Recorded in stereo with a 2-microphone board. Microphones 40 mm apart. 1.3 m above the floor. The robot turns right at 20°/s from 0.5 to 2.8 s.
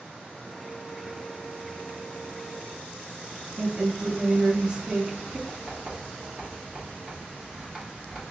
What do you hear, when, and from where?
3.6 s a woman speaking: 25° right (ahead or behind), 2 m
5.5 s writing: 10° right (ahead or behind), 2 m